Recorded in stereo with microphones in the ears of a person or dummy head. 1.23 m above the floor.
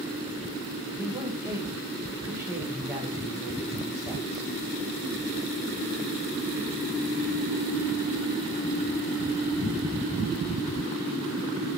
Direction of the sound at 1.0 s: 15° right (ahead or behind).